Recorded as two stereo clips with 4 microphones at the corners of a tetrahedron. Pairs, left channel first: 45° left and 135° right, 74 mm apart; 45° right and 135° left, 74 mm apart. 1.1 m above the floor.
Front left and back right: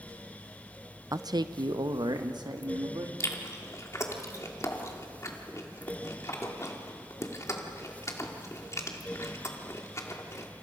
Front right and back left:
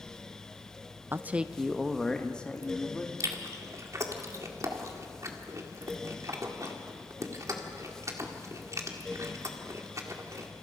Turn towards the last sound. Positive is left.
turn(degrees=90)